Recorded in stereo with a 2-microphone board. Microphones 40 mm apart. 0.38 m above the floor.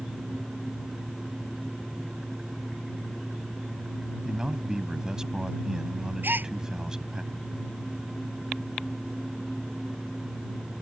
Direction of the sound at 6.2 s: 60° right (ahead or behind).